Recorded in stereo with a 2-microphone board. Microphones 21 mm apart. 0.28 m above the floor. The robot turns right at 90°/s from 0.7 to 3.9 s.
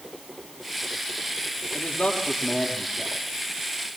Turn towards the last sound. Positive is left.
turn(degrees=-95)